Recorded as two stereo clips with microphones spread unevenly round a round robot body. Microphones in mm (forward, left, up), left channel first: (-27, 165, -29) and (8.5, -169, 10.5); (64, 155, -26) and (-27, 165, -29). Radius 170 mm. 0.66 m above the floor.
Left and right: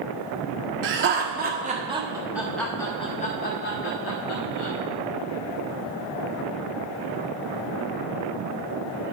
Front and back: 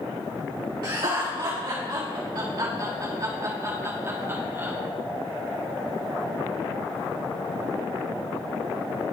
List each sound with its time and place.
0.8 s laughter: 135° right, 1.6 m; by 4.7 s 110° left, 1.7 m